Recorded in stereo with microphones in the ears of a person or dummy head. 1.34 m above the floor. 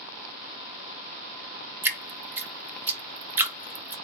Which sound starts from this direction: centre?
Dripping, at 1.8 s.